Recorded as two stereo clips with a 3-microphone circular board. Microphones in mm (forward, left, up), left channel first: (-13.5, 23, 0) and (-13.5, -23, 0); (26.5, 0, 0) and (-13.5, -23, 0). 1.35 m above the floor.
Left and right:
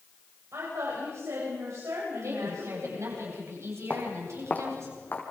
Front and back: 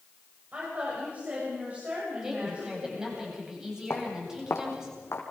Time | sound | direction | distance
0.5 | a woman speaking | 95° right | 8.5 m
2.2 | a woman speaking | 70° right | 10 m
3.9 | footsteps | 30° left | 3.5 m